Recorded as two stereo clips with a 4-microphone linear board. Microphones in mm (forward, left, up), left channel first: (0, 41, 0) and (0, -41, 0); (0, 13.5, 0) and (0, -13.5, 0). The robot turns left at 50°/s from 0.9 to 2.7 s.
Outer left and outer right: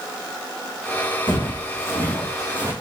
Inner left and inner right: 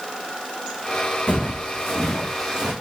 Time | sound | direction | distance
1.3 | footsteps | 70° left (ahead or behind) | 2.5 m